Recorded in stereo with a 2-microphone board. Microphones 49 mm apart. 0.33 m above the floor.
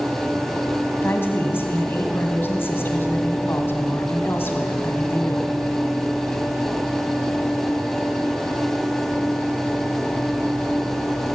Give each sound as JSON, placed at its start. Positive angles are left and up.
{"t": 1.0, "sound": "a woman speaking", "side_deg": 50, "distance_m": 1.9}